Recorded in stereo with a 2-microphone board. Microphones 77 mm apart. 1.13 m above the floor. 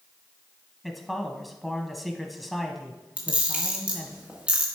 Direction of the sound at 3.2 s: 15° right (ahead or behind).